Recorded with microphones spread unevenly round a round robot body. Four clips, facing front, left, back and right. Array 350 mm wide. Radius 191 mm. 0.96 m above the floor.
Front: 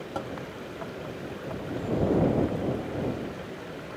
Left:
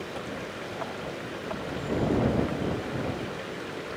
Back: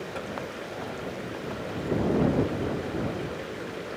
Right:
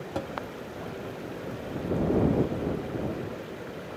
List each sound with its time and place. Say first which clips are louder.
0.1 s tapping: right 7 dB, front 4 dB; 80° right